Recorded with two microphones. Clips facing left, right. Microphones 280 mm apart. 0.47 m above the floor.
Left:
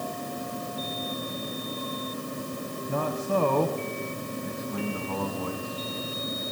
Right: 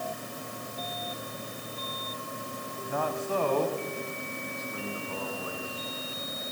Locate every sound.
2.9 s a man speaking: 45° left (ahead or behind), 2.5 m; by 5.9 s 80° left, 4 m